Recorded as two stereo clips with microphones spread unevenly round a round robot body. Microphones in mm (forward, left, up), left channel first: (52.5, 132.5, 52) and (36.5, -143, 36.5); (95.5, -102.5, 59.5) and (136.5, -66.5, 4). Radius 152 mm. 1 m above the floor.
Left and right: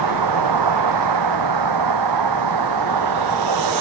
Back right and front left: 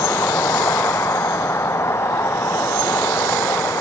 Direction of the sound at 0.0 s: 110° right.